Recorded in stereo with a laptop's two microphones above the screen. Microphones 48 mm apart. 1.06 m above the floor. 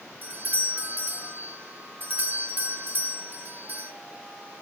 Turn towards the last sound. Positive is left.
turn(degrees=-40)  # may be behind; listen again after turning